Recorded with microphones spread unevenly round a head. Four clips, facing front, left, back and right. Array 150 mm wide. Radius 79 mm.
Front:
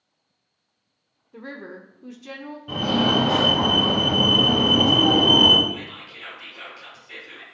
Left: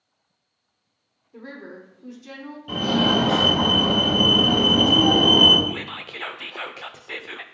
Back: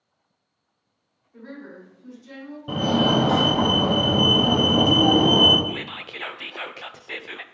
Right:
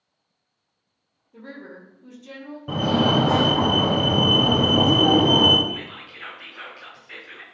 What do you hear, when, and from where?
1.3 s a woman speaking: 10° left, 1.1 m
2.7 s a fire alarm: 120° right, 1.4 m
5.7 s whispering: 135° left, 0.5 m